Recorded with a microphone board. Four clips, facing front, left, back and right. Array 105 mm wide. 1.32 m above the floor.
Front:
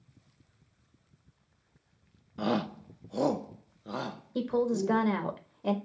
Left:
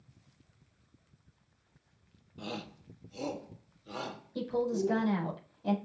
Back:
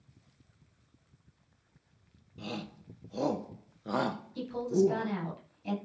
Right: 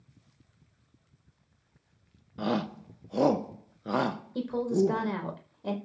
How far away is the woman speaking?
About 5 m.